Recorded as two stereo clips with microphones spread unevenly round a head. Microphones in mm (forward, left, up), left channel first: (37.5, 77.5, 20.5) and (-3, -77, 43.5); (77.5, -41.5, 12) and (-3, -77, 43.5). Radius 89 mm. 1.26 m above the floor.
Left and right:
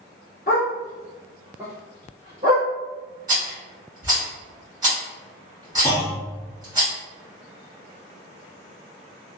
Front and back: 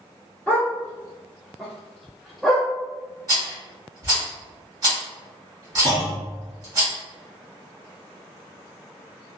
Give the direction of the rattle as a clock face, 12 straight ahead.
5 o'clock.